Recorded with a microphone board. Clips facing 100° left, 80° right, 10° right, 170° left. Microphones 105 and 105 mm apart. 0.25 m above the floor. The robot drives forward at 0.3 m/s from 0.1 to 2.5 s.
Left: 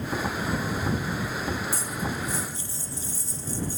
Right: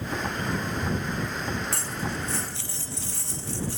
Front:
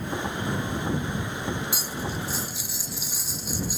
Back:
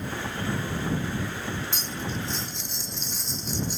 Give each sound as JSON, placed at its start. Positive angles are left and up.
{"t": 1.7, "sound": "cutlery clinking", "azimuth_deg": -90}